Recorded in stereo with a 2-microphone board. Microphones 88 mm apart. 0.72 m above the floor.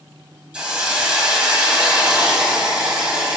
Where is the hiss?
10° right (ahead or behind), 4.5 m.